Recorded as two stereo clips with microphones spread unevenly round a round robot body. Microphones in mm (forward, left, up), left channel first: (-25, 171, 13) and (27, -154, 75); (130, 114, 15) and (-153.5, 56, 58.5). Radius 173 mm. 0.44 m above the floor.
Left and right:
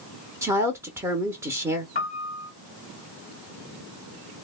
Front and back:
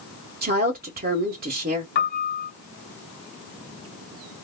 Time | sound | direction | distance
0.4 | a woman speaking | 175° right | 0.7 m
1.9 | a piano | 45° left | 1.5 m